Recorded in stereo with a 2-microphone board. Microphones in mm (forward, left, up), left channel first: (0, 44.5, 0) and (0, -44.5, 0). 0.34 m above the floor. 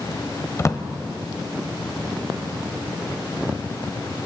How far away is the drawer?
About 1.0 m.